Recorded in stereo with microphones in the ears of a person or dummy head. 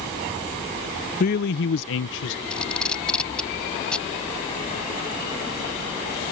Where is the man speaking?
40° left (ahead or behind); by 2.4 s 75° left (ahead or behind).